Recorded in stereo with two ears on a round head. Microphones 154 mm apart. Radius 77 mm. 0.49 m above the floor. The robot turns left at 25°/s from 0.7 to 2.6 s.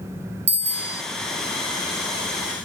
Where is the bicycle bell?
40° right (ahead or behind), 2 m; by 1.0 s 30° right (ahead or behind), 2 m.